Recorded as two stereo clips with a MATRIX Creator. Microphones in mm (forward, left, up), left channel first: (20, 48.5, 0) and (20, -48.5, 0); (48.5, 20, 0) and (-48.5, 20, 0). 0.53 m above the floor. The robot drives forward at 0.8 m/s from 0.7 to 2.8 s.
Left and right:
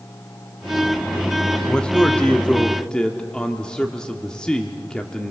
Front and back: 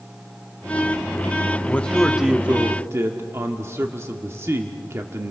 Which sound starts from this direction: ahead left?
A man speaking, at 1.7 s.